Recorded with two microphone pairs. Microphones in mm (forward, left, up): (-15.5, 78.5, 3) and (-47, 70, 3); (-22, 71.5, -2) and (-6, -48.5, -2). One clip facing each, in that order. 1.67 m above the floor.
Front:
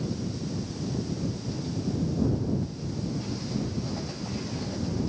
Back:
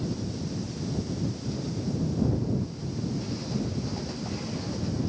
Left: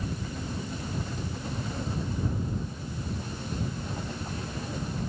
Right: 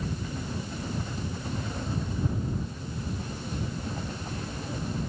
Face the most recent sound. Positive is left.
No sound to turn to.